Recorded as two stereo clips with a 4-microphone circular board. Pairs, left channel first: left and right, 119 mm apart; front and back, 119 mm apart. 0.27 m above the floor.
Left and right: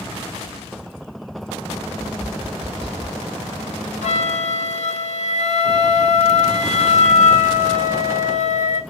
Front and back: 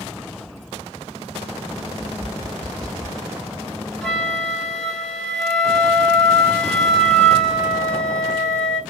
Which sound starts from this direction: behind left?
Tapping, at 1.9 s.